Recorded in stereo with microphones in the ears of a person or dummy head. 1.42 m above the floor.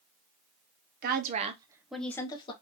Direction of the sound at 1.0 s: 55° right (ahead or behind).